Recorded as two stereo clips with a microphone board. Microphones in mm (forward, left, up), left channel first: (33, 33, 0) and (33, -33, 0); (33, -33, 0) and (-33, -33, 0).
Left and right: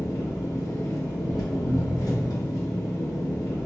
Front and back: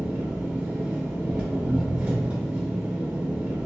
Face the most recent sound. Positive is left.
turn(degrees=110)